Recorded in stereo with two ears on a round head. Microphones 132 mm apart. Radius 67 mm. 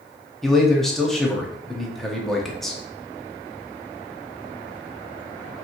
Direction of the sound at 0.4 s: 5° left (ahead or behind).